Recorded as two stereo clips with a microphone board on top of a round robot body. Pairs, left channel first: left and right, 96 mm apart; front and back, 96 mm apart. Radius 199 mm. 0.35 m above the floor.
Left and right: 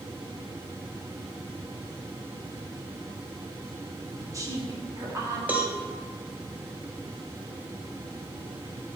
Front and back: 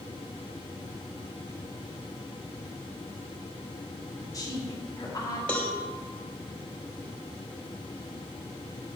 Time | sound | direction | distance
4.2 | a woman speaking | 40° right | 2 m
5.5 | a cowbell | 50° right | 1.4 m